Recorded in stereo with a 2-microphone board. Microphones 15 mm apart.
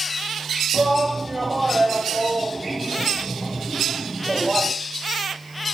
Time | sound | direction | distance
0.7 | a shout | 45° right (ahead or behind) | 1.8 m